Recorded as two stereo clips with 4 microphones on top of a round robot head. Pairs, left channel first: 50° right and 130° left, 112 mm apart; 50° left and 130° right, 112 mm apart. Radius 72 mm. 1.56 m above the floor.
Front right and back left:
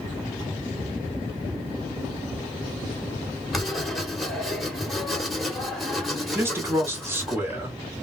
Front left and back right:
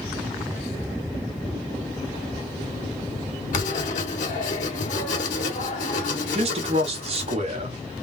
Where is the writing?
40° left, 1.3 m.